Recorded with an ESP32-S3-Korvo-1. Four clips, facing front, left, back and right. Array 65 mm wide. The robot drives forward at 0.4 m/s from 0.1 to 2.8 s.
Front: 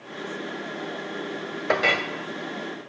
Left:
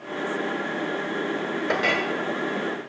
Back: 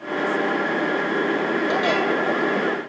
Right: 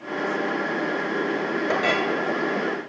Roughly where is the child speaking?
No child speaking in this recording.